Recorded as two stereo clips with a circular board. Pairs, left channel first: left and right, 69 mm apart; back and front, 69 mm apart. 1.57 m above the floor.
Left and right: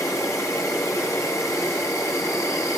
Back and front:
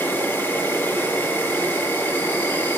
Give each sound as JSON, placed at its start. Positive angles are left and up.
{"t": 0.0, "sound": "an insect", "azimuth_deg": 125, "distance_m": 2.0}